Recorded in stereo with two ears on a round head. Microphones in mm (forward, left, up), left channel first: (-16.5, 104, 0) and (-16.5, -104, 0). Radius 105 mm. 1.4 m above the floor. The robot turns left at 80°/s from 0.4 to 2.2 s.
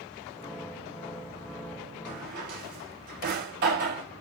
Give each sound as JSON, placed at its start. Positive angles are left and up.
{"t": 2.0, "sound": "a drawer", "side_deg": -35, "distance_m": 3.5}